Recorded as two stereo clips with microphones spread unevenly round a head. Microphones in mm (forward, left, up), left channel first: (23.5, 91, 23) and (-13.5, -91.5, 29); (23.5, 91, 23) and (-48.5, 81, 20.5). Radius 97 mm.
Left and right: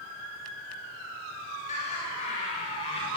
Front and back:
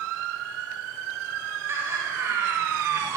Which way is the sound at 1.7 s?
135° left.